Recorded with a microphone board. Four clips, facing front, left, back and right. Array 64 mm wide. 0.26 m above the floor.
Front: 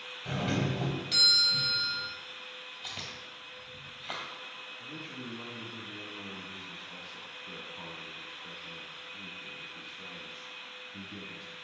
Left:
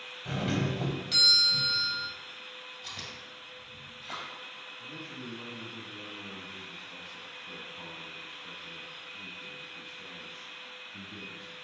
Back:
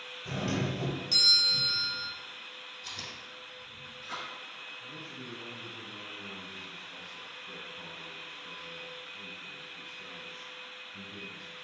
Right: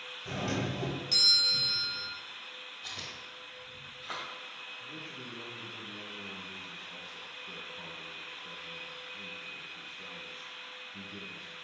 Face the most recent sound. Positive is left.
turn(degrees=10)